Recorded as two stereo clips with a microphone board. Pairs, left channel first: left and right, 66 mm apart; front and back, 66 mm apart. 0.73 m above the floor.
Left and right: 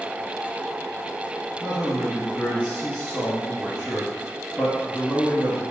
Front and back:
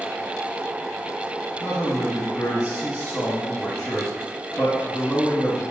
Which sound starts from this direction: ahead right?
A man speaking, at 1.6 s.